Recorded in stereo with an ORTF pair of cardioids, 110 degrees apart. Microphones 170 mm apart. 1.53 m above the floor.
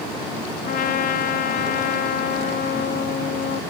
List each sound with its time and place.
0.7 s a trumpet: 55° left, 1.2 m